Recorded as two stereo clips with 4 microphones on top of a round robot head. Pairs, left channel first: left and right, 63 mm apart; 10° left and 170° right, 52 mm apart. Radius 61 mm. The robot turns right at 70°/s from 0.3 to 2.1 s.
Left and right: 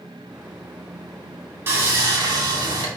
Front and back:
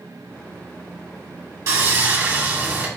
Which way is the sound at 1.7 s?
145° right.